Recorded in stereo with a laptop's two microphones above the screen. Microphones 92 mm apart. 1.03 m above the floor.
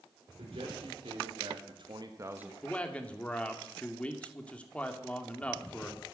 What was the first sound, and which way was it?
A man speaking, 80° right.